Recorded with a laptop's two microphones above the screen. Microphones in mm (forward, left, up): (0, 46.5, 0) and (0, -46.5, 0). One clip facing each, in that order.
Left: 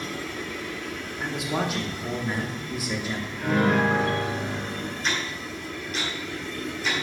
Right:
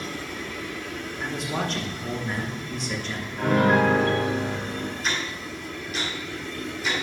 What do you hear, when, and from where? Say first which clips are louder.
1.2 s a man speaking: left 2 dB; 10° left (ahead or behind), 1.0 m
3.4 s a piano: right 3 dB; 70° right (ahead or behind), 2.5 m
5.0 s ticking: even; centre (ahead or behind), 3 m